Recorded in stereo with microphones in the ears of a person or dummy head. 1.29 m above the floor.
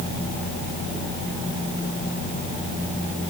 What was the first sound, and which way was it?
Only background noise.